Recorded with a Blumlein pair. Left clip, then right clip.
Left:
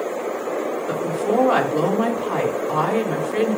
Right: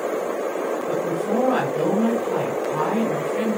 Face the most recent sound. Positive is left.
turn(degrees=65)